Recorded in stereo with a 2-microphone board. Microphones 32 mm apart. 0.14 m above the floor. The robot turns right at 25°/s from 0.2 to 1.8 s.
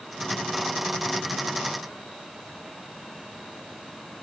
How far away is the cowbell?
I don't hear a cowbell.